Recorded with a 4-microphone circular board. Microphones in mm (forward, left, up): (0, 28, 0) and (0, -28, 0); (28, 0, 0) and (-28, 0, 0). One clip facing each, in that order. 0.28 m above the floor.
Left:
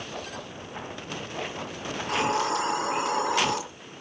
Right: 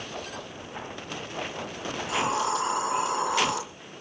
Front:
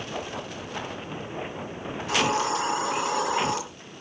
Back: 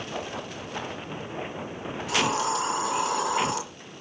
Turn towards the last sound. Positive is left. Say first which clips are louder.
# left 1 dB, front 1 dB
turn(degrees=50)